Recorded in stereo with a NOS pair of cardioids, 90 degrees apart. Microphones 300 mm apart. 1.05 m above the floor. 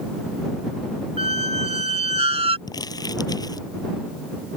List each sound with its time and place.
1.2 s a squeak: 20° right
2.7 s crumpling: 10° left